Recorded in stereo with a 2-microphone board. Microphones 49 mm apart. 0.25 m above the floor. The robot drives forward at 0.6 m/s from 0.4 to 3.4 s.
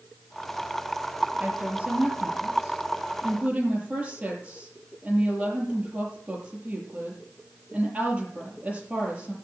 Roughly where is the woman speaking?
Right.